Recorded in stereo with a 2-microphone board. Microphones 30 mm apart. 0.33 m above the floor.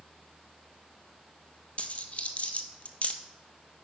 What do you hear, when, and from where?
1.8 s a dropped coin: 45° left (ahead or behind), 0.7 m